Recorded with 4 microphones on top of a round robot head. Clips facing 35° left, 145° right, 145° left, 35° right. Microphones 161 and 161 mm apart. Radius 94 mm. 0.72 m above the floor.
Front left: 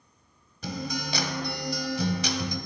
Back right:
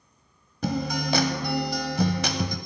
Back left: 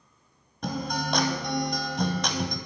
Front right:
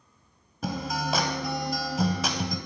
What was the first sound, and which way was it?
A guitar, 120° right.